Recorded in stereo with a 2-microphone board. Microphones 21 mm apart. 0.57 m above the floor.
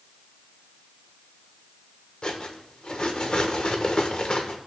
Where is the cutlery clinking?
45° left (ahead or behind), 1.1 m.